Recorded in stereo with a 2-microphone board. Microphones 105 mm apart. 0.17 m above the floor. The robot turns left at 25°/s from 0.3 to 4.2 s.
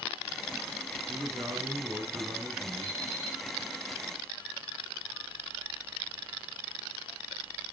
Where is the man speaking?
105° right, 2 m; by 3.1 s 155° right, 2 m.